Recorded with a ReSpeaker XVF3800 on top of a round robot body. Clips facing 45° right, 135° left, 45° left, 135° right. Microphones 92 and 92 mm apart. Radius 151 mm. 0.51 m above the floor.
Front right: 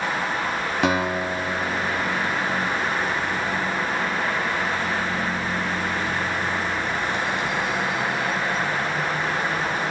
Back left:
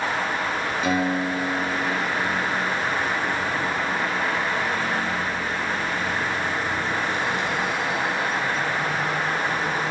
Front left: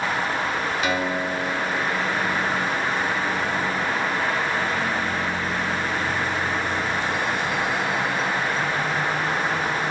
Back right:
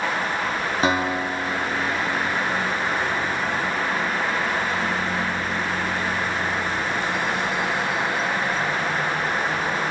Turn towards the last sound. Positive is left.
turn(degrees=-75)